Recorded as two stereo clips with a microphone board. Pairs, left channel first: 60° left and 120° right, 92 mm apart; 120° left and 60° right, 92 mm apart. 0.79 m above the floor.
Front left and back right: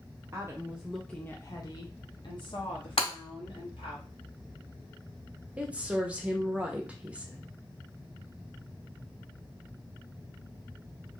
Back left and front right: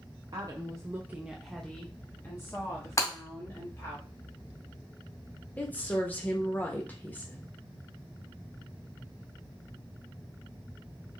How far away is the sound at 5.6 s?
About 0.8 m.